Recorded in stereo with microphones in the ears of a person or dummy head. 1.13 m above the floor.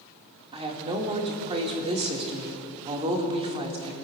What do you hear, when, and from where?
0.5 s a woman speaking: 30° right (ahead or behind), 2 m